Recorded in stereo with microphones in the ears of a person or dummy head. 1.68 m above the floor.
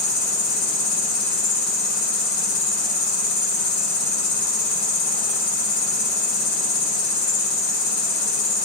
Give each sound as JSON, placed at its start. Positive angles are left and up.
{"t": 0.0, "sound": "an insect", "side_deg": 45, "distance_m": 1.6}